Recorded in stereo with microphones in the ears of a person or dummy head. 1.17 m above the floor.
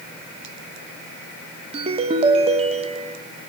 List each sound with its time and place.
1.7 s a ringtone: 40° right (ahead or behind), 1.0 m